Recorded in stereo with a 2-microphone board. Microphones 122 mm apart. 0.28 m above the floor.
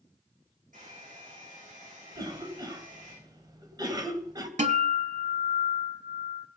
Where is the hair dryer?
85° right, 9.5 m.